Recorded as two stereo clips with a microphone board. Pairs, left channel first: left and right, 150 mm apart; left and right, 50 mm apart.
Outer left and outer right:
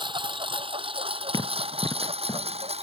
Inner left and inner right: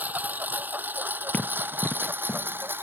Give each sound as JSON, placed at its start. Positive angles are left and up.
{"t": 0.0, "sound": "a lawn mower", "side_deg": -30}
{"t": 1.3, "sound": "running footsteps", "side_deg": 25}